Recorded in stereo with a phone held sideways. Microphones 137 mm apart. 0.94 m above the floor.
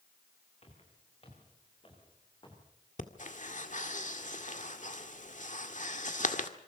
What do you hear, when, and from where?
0.6 s footsteps: 50° left (ahead or behind), 9 m; by 2.6 s 35° left (ahead or behind), 9.5 m
3.0 s breathing: 65° left (ahead or behind), 1.9 m